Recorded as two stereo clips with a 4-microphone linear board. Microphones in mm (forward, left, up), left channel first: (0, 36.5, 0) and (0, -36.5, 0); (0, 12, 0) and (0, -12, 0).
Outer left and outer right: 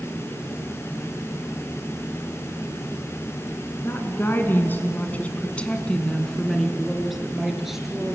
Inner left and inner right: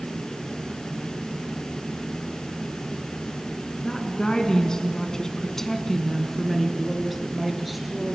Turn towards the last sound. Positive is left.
turn(degrees=-5)  # may be behind; listen again after turning